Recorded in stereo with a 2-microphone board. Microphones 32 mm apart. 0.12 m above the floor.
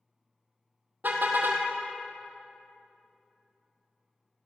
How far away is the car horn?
About 2 m.